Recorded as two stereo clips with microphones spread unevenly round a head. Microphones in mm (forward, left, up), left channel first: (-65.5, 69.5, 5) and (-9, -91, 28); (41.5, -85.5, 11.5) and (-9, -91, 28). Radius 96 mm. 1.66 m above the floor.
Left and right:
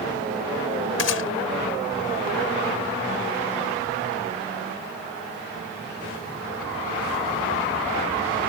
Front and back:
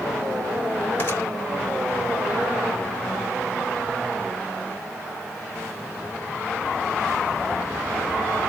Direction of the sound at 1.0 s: 80° left.